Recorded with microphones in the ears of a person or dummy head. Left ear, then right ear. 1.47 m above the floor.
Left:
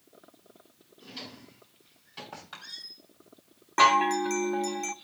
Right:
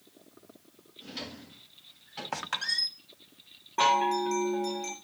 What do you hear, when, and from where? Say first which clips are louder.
1.0 s a drawer: right 2 dB; 15° left (ahead or behind), 5.5 m
2.3 s a squeak: right 15 dB; 55° right (ahead or behind), 0.8 m
3.8 s a chime: left 3 dB; 55° left (ahead or behind), 0.7 m